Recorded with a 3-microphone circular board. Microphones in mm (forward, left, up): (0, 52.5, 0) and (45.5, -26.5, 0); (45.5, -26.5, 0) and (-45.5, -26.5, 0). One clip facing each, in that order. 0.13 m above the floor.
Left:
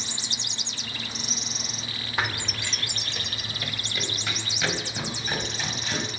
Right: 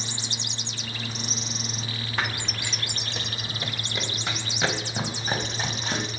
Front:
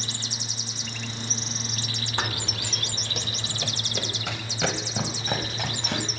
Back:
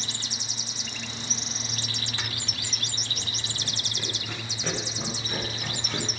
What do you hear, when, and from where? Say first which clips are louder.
2.2 s running footsteps: left 1 dB, front 7 dB; 35° left, 1.0 m; by 6.1 s 5° right, 6.5 m